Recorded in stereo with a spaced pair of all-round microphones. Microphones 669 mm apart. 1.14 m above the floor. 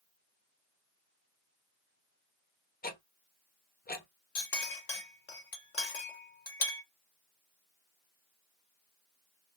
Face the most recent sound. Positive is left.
turn(degrees=75)  # may be behind; listen again after turning